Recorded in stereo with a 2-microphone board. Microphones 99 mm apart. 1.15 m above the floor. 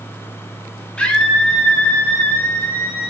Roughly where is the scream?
Centre.